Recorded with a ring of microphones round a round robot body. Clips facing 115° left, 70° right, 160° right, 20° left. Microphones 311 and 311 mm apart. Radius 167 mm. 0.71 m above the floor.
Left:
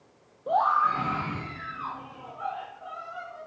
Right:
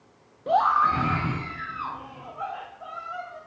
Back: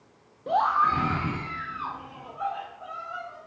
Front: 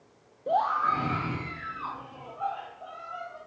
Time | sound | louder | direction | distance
0.5 | a scream | right 3 dB, back 1 dB | 95° right | 0.7 m